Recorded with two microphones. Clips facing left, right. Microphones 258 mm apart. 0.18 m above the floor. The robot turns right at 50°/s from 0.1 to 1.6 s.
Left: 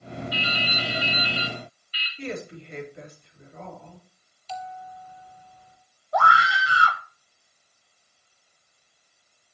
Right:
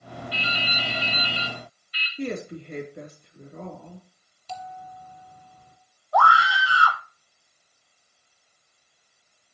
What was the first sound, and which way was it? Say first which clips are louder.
Dripping: left 1 dB; 30° right.